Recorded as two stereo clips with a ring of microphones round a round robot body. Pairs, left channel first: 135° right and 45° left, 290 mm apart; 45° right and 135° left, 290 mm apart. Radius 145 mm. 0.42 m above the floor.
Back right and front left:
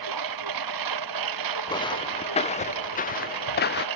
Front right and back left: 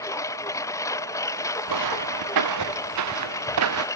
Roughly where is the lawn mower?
Ahead left.